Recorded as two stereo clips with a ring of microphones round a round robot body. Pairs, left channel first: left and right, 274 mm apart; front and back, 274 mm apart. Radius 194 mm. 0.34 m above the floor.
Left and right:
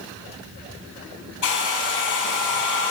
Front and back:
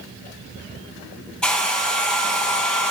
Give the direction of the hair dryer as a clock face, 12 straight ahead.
9 o'clock.